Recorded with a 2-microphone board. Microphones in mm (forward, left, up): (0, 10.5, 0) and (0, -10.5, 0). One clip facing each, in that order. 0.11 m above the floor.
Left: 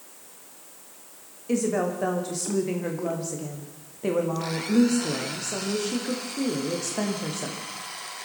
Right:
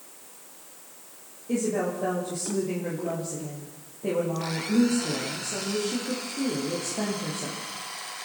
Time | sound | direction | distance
1.5 | a woman speaking | 70° left (ahead or behind) | 6 m